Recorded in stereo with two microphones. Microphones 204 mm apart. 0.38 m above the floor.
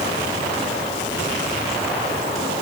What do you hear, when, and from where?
Only background noise.